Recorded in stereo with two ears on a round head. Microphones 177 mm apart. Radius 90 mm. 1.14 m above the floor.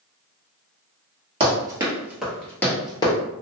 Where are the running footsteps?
25° right (ahead or behind), 1.3 m; by 3.1 s 25° left (ahead or behind), 1.2 m.